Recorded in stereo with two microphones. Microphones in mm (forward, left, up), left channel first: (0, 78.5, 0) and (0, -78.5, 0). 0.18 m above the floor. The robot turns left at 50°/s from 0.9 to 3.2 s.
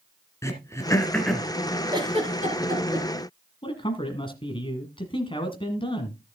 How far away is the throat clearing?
About 2.0 m.